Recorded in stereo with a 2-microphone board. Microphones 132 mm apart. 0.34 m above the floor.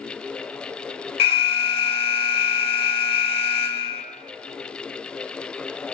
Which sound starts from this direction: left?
An alarm, at 1.2 s.